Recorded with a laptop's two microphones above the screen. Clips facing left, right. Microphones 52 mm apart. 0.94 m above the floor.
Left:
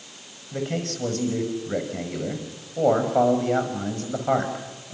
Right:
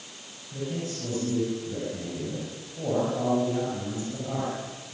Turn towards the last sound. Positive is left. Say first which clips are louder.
# left 4 dB
turn(degrees=85)